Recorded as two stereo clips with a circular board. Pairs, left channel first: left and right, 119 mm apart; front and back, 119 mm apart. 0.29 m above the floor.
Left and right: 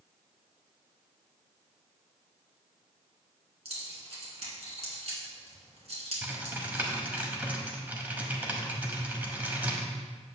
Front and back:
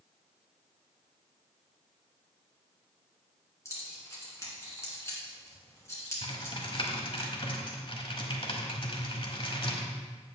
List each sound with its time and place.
3.6 s keys jangling: 65° right, 2.5 m
6.2 s typing on a keyboard: 20° right, 1.1 m